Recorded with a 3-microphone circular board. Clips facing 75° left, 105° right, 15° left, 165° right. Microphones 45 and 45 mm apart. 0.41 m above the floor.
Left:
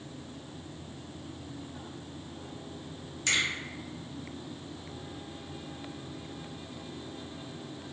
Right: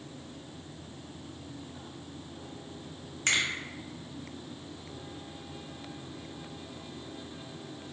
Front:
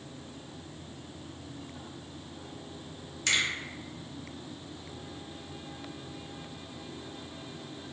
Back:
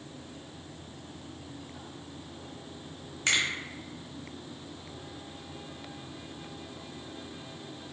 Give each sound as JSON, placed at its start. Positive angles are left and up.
{"t": 3.3, "sound": "a finger snap", "azimuth_deg": -120, "distance_m": 0.8}